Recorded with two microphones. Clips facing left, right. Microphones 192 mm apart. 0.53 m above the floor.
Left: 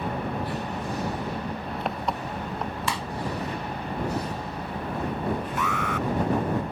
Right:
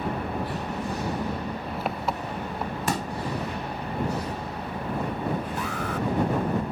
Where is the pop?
45° right (ahead or behind).